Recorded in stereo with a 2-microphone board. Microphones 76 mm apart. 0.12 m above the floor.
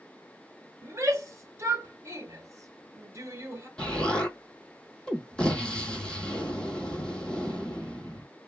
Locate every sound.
0.8 s a shout: 40° right (ahead or behind), 1.4 m
3.8 s an explosion: 15° left (ahead or behind), 0.8 m